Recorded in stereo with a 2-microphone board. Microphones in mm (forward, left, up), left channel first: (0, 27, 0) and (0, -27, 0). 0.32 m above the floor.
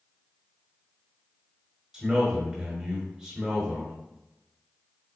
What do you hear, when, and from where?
1.9 s a man speaking: 15° right (ahead or behind), 1.1 m